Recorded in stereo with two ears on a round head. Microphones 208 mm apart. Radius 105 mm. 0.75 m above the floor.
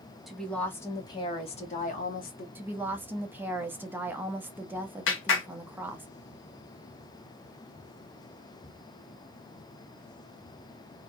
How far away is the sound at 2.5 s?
About 1.0 m.